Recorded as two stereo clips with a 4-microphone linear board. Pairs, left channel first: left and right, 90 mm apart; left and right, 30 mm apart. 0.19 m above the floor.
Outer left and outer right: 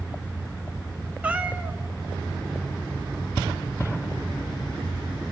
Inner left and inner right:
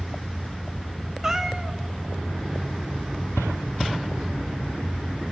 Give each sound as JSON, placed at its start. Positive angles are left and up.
{"t": 1.2, "sound": "a cat meowing", "side_deg": -15, "distance_m": 0.8}